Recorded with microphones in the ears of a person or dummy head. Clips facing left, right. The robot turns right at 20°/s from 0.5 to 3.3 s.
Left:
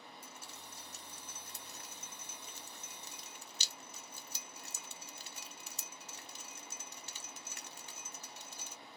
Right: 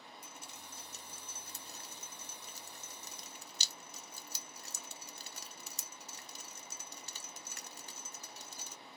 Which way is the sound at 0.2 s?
15° right (ahead or behind).